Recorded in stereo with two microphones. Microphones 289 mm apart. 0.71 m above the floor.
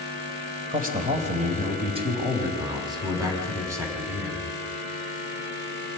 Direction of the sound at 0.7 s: 30° right (ahead or behind).